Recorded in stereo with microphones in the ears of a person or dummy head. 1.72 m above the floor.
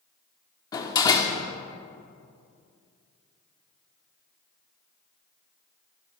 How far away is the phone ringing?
I don't hear a phone ringing.